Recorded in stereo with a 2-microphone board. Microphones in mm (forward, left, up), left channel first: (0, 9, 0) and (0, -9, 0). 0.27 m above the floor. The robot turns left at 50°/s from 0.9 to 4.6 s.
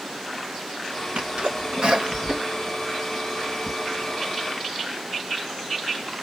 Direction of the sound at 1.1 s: 55° right (ahead or behind).